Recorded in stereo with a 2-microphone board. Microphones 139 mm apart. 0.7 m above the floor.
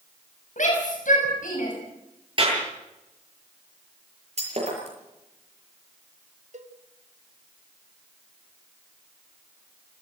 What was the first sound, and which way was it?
A shout, 65° left (ahead or behind).